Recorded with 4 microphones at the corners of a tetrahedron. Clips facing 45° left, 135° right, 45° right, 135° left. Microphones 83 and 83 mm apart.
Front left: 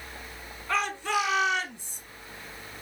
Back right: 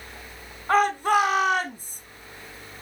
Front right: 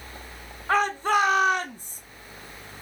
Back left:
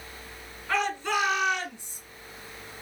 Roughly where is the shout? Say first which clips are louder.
Back right 8 dB, front right 5 dB; right.